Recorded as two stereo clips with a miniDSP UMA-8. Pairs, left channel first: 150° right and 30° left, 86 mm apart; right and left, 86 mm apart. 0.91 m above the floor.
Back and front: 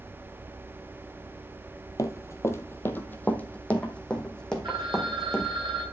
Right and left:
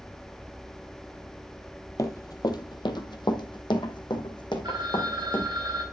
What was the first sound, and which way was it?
Running footsteps, 120° right.